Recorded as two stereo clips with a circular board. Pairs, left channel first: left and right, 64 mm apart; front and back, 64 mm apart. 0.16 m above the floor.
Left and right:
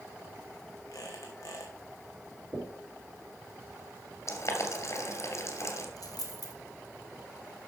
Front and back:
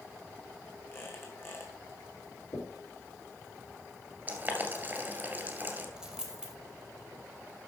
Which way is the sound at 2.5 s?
35° right.